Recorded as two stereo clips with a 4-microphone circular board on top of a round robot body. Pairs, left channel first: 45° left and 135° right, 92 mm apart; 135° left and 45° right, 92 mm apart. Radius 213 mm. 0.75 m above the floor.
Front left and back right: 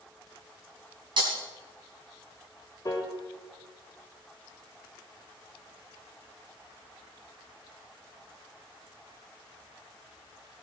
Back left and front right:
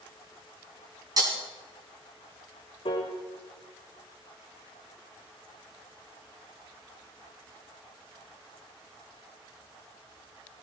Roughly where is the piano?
Left.